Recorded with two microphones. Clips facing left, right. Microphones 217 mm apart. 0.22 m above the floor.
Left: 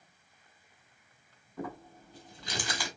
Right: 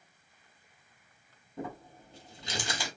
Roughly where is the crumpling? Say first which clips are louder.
Even; right.